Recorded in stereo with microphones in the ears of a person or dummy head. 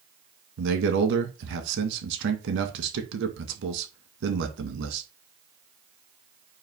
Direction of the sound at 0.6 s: 70° right (ahead or behind).